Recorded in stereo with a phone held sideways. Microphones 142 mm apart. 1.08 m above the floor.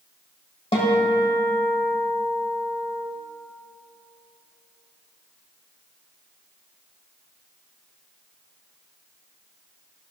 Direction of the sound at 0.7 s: 45° left (ahead or behind).